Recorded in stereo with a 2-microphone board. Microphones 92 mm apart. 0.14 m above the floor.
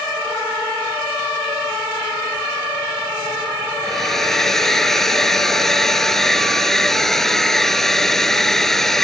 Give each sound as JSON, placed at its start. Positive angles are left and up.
{"t": 3.8, "sound": "a hair dryer", "side_deg": 5}